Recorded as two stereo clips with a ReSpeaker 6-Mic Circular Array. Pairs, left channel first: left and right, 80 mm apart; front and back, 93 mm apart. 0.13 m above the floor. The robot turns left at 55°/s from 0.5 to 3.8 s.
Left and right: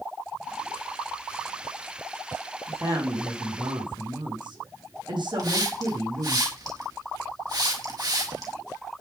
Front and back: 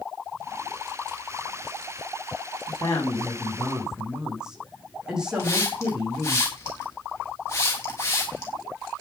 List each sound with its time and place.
2.7 s a woman speaking: 35° right, 6.5 m; by 6.4 s 100° right, 6.5 m
5.4 s a hiss: 60° right, 6 m